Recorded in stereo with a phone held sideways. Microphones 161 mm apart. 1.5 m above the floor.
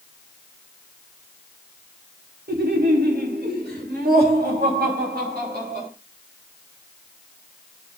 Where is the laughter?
75° right (ahead or behind), 2.5 m; by 5.9 s 70° right (ahead or behind), 6 m.